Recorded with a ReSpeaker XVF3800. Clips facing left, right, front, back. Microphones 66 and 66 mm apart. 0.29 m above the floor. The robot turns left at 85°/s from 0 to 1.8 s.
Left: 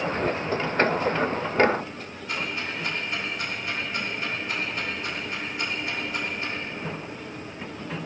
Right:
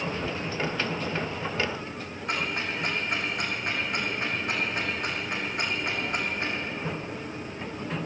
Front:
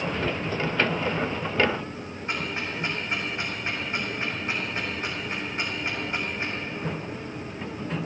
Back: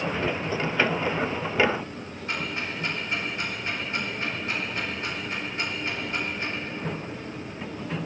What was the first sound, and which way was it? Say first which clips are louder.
Ticking: right 1 dB, even; 65° right.